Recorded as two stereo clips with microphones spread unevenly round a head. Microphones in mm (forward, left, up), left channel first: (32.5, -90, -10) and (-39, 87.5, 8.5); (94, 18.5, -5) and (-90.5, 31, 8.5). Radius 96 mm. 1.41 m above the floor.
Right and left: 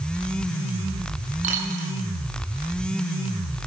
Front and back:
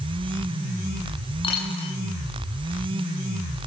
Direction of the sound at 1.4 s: 60° left.